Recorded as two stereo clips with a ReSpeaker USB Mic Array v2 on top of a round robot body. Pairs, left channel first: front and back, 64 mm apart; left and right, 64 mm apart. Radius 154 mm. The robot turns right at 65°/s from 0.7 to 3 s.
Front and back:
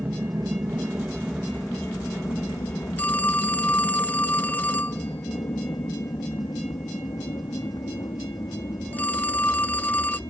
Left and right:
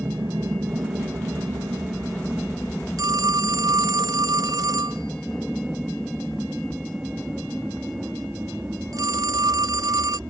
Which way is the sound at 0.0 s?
115° right.